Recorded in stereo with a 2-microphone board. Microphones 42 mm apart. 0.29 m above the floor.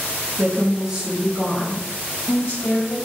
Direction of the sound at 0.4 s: 35° right (ahead or behind).